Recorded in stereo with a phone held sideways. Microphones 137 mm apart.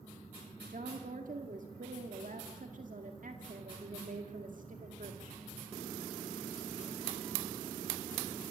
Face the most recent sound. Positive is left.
turn(degrees=-65)  # may be behind; listen again after turning